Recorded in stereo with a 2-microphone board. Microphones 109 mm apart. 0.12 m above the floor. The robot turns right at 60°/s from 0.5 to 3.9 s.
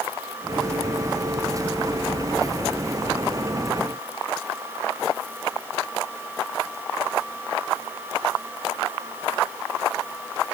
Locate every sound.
Only background noise.